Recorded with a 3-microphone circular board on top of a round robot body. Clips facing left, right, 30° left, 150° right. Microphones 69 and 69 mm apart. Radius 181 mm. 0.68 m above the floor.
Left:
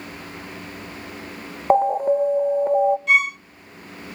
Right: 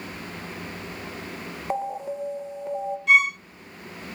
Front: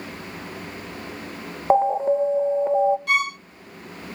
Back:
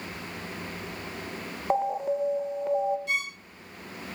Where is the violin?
Straight ahead, 0.5 m.